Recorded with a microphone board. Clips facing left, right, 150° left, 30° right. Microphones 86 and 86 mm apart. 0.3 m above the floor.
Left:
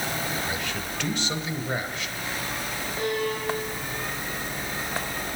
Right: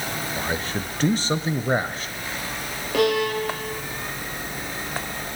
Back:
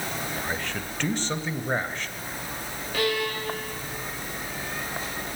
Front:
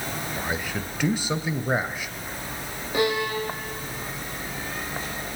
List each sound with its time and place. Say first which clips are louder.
0.4 s a man speaking: right 3 dB, front 2 dB; 105° right, 1.1 m
2.9 s a violin: right 8 dB, front 3 dB; 100° right, 3 m